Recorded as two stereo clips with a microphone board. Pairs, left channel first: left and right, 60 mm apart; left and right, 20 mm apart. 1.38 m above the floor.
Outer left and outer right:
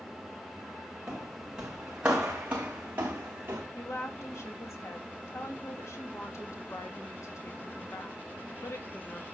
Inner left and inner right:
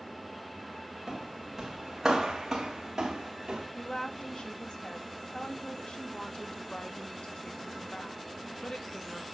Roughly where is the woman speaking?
Left.